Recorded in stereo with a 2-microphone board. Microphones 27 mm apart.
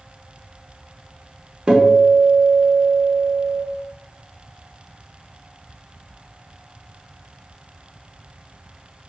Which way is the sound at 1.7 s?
35° right (ahead or behind).